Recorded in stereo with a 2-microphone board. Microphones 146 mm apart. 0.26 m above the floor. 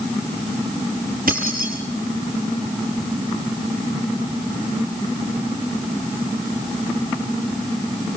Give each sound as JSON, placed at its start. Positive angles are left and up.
{"t": 1.3, "sound": "keys jangling", "side_deg": -80, "distance_m": 5.0}